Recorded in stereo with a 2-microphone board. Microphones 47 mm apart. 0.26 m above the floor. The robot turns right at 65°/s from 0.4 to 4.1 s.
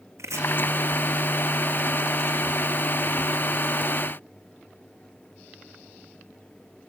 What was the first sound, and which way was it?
Chopping, 85° right.